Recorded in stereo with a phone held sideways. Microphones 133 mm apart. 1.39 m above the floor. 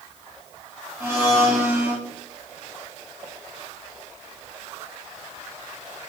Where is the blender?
20° right (ahead or behind), 1.8 m.